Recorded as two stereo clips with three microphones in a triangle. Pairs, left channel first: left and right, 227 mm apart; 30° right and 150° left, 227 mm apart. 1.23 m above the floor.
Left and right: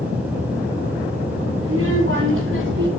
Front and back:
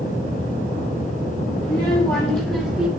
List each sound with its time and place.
1.6 s a child speaking: 100° right, 3 m; by 2.9 s 120° right, 3 m